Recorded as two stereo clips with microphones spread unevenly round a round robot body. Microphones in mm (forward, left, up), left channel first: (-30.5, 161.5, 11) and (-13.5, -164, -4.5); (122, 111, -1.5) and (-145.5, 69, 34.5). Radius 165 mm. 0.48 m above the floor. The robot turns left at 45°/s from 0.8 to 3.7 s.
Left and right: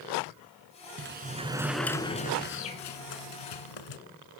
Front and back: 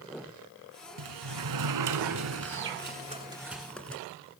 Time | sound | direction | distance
1.0 | a sliding door | 140° right | 2 m